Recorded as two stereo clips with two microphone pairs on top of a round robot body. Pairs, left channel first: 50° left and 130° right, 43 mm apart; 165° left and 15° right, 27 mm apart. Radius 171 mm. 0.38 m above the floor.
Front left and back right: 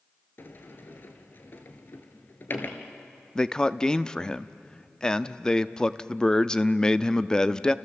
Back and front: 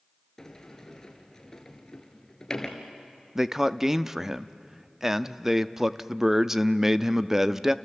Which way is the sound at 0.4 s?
95° left.